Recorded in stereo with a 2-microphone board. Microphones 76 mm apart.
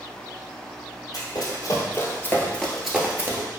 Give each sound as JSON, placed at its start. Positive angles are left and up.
{"t": 1.1, "sound": "running footsteps", "side_deg": 60, "distance_m": 1.9}